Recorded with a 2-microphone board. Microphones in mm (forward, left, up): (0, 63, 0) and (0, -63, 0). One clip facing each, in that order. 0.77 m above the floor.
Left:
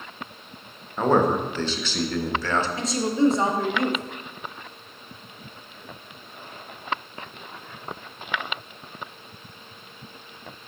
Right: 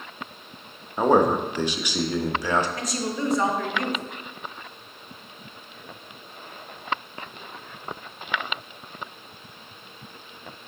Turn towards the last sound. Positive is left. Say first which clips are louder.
# left 6 dB
turn(degrees=25)  # may be behind; listen again after turning